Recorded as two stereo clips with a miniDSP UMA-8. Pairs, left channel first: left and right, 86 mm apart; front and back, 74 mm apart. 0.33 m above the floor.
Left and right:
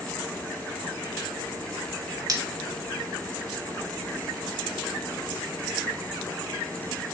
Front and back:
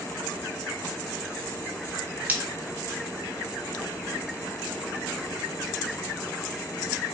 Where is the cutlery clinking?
120° right, 0.7 m.